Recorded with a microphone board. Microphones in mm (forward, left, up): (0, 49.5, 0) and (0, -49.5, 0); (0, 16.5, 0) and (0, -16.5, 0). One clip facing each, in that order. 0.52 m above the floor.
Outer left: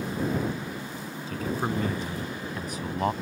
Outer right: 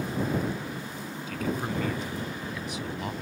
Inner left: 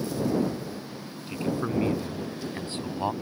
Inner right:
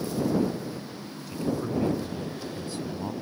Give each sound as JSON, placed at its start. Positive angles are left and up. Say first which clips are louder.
{"t": 1.3, "sound": "a man speaking", "louder": "outer left 2 dB, inner left 1 dB", "side_deg": 35}